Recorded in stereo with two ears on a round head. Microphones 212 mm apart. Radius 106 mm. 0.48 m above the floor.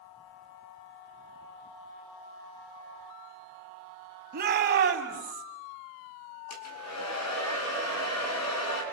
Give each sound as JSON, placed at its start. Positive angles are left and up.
{"t": 4.3, "sound": "a shout", "side_deg": -40, "distance_m": 3.0}
{"t": 6.5, "sound": "a hair dryer", "side_deg": 75, "distance_m": 5.5}